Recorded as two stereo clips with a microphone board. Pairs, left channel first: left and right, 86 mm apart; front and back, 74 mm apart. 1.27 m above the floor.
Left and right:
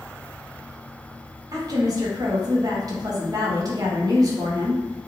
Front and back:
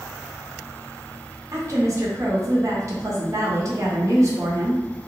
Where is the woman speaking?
135° right, 1.1 m.